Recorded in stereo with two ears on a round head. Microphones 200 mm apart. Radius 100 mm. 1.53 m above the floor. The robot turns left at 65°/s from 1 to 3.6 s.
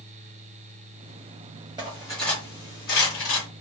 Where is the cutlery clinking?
20° right (ahead or behind), 1.6 m; by 3.5 s 65° left (ahead or behind), 1.6 m.